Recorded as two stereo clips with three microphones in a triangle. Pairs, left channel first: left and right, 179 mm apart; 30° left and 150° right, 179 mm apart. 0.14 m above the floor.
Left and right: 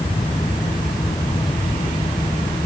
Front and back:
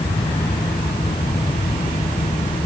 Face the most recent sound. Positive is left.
No sound to turn to.